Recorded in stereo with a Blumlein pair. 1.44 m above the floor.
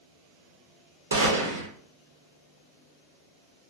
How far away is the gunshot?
About 0.9 m.